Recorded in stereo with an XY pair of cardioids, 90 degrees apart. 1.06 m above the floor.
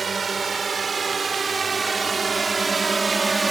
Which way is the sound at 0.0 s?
45° right.